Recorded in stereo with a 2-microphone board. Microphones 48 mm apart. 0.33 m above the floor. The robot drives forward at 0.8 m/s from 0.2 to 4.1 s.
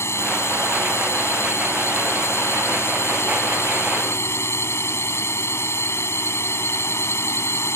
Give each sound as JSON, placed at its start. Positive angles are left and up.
{"t": 0.0, "sound": "a drone", "side_deg": 60}